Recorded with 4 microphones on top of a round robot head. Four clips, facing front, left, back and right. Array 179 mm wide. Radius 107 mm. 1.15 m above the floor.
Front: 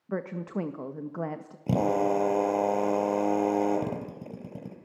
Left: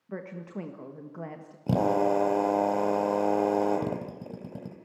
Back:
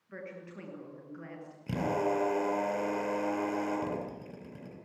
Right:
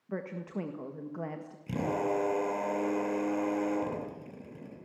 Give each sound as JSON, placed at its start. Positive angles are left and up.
{"t": 0.1, "sound": "a woman speaking", "azimuth_deg": 0, "distance_m": 1.8}
{"t": 1.7, "sound": "a drill", "azimuth_deg": 50, "distance_m": 3.5}